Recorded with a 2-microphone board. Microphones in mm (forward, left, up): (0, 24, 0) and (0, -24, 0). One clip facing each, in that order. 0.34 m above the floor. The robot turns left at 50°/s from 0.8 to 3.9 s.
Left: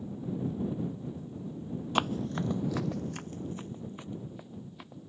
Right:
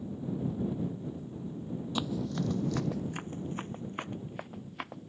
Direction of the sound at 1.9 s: 55° left (ahead or behind).